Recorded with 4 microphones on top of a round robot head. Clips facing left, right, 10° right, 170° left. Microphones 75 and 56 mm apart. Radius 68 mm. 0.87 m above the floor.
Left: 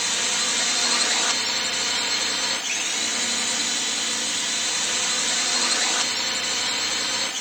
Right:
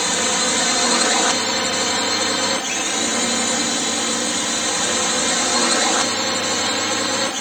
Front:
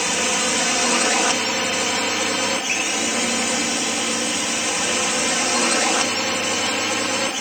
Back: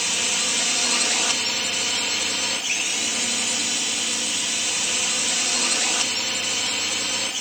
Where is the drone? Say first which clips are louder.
Right 8 dB, front 5 dB; 55° right.